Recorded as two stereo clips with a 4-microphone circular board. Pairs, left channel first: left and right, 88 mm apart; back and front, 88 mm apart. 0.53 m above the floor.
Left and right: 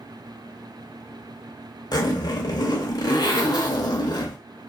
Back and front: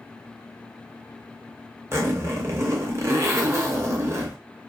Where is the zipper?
55° left, 0.7 m.